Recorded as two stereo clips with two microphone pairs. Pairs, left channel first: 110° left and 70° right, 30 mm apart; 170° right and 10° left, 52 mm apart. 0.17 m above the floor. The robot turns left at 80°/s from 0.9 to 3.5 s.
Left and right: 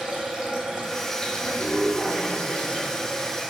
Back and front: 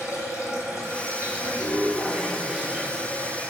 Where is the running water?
150° right, 1.0 m; by 3.5 s straight ahead, 1.0 m.